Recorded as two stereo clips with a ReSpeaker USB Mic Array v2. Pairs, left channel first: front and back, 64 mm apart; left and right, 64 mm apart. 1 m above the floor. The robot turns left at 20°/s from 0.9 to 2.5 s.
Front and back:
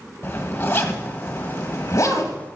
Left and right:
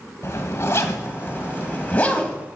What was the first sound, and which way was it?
A zipper, 45° left.